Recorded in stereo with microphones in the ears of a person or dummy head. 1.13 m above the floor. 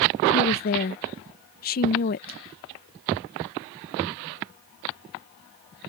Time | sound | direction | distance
0.3 | a woman speaking | 45° left (ahead or behind) | ?